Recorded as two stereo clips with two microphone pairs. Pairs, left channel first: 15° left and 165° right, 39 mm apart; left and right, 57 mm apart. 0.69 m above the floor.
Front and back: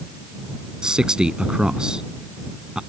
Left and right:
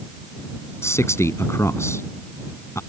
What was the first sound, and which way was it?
A man speaking, 125° left.